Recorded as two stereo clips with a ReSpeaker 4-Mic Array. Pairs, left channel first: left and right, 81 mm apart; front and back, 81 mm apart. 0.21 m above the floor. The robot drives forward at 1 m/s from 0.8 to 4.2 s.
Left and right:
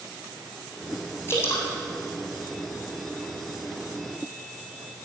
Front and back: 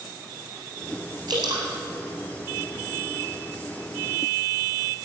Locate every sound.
1.3 s dripping: 150° left, 3.5 m